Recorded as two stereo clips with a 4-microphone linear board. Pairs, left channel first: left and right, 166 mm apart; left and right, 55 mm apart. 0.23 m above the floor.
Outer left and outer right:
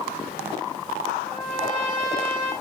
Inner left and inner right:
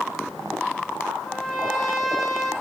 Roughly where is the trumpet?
Centre.